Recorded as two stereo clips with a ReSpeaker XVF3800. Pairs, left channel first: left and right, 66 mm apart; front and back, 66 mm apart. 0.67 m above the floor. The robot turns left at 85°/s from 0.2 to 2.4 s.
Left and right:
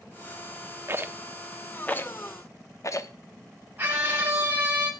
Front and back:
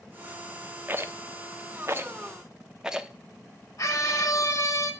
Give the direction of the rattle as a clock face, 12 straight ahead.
4 o'clock.